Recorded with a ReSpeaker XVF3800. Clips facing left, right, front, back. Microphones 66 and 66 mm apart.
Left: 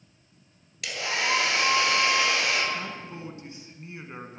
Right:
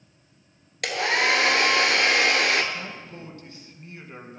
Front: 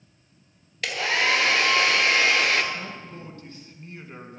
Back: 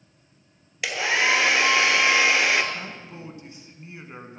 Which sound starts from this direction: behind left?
A man speaking, at 2.7 s.